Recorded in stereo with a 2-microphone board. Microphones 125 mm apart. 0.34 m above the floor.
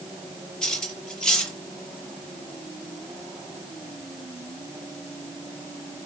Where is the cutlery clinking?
5° left (ahead or behind), 5 m.